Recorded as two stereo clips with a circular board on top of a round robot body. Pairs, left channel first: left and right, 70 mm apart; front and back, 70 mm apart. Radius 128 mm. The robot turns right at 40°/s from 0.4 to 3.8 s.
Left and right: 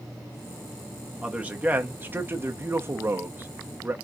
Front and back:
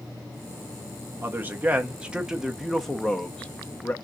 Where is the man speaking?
150° right, 0.9 m; by 3.9 s 45° right, 0.9 m.